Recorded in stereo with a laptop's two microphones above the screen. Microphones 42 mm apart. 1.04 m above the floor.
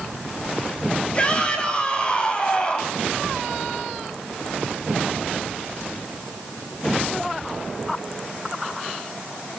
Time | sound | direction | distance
1.1 | a shout | 25° left (ahead or behind) | 8 m